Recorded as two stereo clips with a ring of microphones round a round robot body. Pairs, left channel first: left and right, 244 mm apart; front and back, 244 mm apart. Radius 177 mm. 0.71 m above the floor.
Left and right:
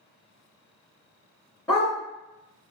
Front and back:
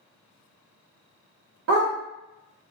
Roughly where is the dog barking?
Behind.